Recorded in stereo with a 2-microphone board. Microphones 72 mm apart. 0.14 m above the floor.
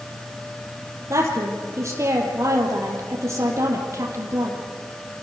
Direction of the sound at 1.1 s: 45° right (ahead or behind).